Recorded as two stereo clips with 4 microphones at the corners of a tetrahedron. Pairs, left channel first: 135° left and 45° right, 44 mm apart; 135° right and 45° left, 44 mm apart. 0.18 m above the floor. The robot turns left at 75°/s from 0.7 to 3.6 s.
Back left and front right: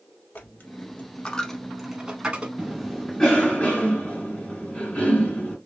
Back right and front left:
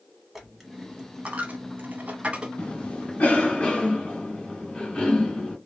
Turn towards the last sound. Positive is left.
turn(degrees=175)